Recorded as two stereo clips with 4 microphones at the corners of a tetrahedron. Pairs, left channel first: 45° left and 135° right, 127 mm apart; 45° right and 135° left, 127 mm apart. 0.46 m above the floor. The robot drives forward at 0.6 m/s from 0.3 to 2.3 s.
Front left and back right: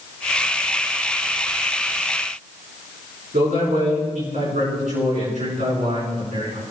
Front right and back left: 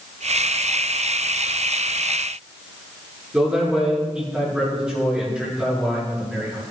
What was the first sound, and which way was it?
A man speaking, 140° right.